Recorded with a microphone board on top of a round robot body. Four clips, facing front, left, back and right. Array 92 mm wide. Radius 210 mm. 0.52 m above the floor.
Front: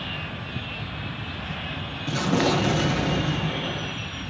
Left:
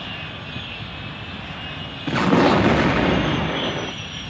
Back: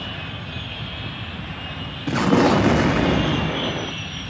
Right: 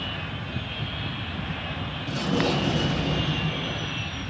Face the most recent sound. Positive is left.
turn(degrees=120)